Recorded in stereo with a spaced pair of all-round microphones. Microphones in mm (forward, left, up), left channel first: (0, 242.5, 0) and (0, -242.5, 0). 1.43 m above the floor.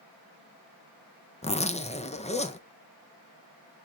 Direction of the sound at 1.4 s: 15° left (ahead or behind).